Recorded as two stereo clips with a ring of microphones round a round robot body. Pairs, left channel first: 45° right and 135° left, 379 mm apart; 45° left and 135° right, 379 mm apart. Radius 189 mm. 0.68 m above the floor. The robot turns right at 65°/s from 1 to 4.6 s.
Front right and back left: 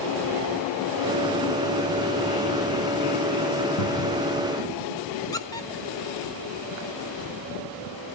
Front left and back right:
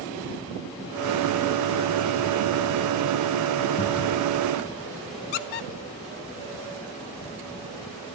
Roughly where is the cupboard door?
Ahead.